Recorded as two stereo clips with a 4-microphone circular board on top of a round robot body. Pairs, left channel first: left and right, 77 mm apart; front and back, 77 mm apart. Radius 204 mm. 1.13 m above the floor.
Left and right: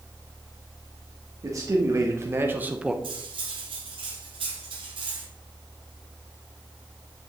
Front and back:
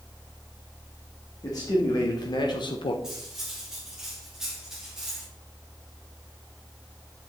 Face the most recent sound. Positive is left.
turn(degrees=-95)